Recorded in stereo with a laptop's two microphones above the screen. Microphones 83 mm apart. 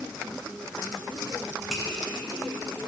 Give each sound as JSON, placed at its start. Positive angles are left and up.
{"t": 1.7, "sound": "a finger snap", "side_deg": 0, "distance_m": 4.0}